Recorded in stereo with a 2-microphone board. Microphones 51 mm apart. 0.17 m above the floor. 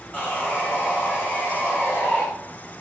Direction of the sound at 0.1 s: 35° left (ahead or behind).